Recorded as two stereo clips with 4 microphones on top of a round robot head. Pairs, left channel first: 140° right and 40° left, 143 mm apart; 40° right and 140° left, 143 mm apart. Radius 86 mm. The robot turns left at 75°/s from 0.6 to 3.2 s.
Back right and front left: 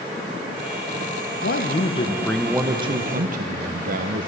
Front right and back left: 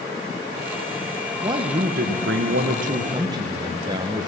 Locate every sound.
1.4 s a man speaking: 155° right, 0.9 m; by 4.3 s 75° left, 0.9 m